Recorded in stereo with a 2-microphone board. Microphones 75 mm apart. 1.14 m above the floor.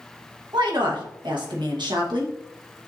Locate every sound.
0.5 s a woman speaking: 80° right, 1.2 m